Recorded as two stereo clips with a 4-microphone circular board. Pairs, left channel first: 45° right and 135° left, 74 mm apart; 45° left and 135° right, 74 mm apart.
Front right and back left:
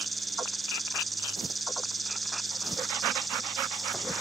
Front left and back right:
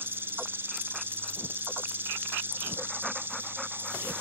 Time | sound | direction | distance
0.0 | an insect | 135° right | 0.8 m